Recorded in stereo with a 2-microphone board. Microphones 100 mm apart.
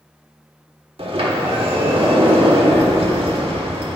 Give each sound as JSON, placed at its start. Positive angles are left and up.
{"t": 1.0, "sound": "a sliding door", "side_deg": -60, "distance_m": 1.3}